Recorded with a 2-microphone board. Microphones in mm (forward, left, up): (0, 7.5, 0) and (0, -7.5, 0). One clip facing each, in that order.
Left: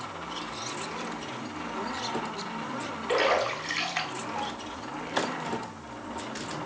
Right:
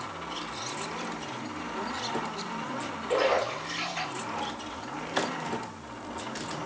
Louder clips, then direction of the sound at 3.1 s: Left 1 dB; 50° left (ahead or behind).